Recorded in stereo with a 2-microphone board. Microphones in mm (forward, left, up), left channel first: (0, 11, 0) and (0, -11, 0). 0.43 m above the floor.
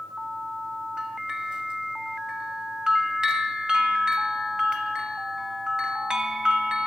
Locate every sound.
1.0 s a bell: 35° right (ahead or behind), 0.9 m